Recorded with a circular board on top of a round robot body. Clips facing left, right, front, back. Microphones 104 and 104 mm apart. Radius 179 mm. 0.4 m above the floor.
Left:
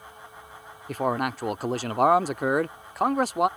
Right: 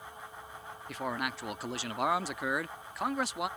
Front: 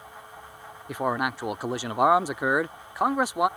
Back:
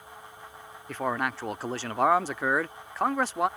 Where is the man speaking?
75° left.